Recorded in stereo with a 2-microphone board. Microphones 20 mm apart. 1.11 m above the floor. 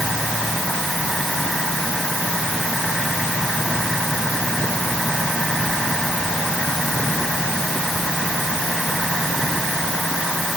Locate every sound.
Only background noise.